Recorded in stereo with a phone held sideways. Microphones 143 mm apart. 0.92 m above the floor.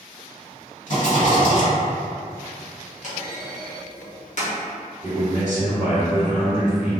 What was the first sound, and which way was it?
A rattle, 60° left (ahead or behind).